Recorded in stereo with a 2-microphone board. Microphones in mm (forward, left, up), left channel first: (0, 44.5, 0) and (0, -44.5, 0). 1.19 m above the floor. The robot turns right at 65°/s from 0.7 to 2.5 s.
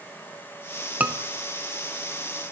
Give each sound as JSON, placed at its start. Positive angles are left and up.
{"t": 1.0, "sound": "a scream", "side_deg": -15, "distance_m": 0.6}